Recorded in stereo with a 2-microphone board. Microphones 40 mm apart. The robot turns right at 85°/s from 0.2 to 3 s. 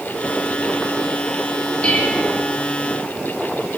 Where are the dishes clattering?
30° left, 9.5 m; by 2.4 s 80° left, 9.5 m.